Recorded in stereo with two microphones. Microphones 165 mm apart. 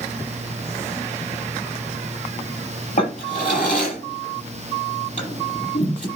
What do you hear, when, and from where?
3.0 s a drawer: 50° left (ahead or behind), 6.5 m